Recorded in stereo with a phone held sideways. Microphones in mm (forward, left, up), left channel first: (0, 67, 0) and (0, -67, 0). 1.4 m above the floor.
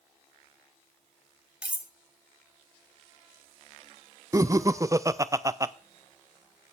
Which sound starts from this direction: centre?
Cutlery clinking, at 1.6 s.